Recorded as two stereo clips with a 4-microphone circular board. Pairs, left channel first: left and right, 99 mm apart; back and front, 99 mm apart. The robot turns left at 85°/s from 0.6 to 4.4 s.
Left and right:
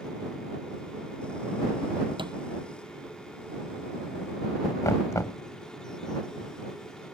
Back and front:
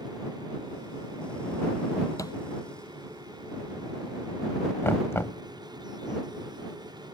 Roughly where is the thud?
Behind right.